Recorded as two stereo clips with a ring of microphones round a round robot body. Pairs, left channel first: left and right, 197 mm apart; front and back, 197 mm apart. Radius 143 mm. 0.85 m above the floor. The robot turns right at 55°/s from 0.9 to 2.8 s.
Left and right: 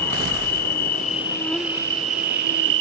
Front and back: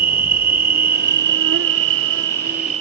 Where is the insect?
140° left; by 2.8 s 115° right.